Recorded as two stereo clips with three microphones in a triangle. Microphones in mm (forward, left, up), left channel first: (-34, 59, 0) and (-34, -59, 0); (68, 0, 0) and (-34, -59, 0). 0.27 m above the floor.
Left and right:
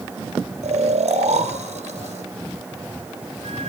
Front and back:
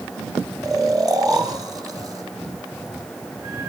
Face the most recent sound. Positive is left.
turn(degrees=-90)